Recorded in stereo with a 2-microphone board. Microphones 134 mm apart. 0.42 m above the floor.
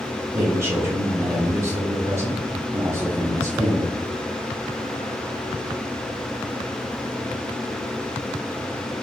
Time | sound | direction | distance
0.3 | a man speaking | 20° right (ahead or behind) | 0.9 m